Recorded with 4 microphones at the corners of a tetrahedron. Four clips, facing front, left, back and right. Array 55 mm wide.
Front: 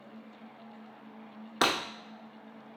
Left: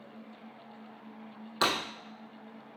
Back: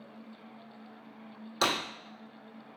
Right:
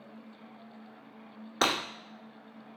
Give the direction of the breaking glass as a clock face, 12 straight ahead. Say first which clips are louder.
Right 1 dB, front 2 dB; 1 o'clock.